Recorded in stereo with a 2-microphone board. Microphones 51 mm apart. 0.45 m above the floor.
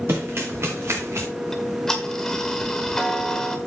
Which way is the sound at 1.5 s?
10° left (ahead or behind).